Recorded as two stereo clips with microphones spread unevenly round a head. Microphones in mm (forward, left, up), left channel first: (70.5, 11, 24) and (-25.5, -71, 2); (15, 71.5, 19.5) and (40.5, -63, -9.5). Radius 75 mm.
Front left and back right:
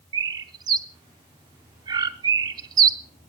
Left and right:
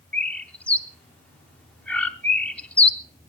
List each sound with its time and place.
0.1 s a bird: 160° left, 0.5 m